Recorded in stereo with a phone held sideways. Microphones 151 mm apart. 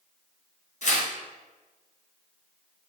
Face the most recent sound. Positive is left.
turn(degrees=55)  # may be behind; listen again after turning